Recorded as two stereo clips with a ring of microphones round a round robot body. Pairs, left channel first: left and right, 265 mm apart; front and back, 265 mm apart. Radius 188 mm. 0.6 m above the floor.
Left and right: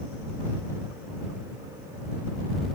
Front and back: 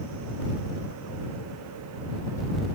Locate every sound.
Only background noise.